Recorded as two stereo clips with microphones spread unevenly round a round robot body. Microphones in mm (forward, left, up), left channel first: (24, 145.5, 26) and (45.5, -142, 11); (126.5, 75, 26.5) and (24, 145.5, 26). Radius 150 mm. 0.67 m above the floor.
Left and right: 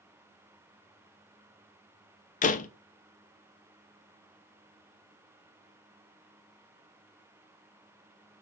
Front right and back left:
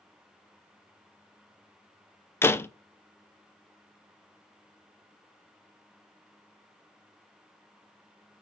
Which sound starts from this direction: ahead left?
A door slam, at 2.4 s.